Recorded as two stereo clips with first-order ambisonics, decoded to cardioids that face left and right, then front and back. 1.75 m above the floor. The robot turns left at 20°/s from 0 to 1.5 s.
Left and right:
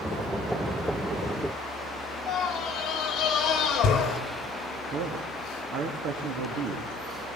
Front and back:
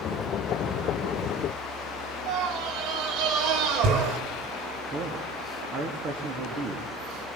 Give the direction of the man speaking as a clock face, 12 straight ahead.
4 o'clock.